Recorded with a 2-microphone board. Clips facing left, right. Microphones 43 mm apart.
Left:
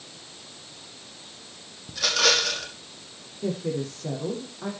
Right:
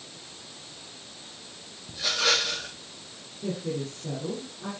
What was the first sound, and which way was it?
A rattle, 75° left (ahead or behind).